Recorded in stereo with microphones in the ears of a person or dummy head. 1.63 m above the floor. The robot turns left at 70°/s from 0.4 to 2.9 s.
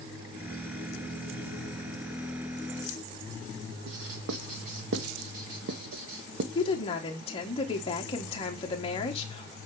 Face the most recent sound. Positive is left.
turn(degrees=30)  # may be behind; listen again after turning